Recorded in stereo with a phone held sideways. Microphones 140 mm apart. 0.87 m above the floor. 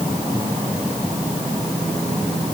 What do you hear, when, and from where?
Only background noise.